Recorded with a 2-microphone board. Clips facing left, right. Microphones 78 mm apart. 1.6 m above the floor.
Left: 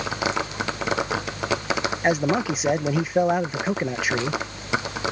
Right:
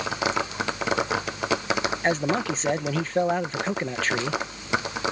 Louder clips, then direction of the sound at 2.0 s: Left 4 dB; 10° left (ahead or behind).